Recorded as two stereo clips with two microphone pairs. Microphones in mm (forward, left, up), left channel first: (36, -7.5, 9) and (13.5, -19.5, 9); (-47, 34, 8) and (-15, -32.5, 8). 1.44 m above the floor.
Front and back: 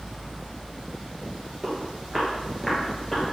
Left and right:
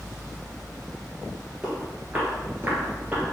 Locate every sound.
1.6 s footsteps: 120° right, 1.6 m; by 3.2 s 20° right, 1.9 m